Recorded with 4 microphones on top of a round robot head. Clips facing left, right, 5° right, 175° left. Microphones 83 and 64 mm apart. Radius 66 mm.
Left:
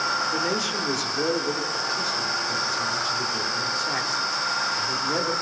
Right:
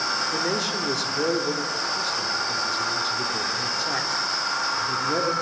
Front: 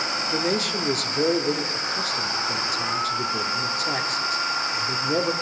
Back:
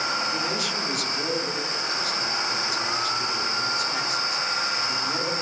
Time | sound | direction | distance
0.3 | a man speaking | 5° right | 1.3 m